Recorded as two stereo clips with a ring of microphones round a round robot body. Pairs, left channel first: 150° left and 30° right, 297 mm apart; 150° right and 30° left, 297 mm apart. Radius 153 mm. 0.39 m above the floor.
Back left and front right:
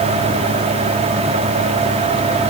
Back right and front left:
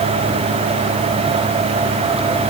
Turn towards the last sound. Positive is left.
No sound to turn to.